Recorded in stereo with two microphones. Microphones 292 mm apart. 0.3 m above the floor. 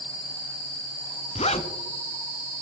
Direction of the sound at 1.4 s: 20° left (ahead or behind).